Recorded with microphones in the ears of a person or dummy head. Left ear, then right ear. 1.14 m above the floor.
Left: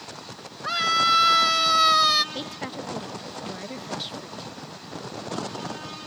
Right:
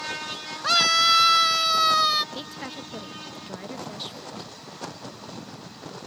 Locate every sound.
0.6 s a scream: 40° right (ahead or behind); by 2.2 s centre (ahead or behind)
2.3 s a woman speaking: 5° right (ahead or behind)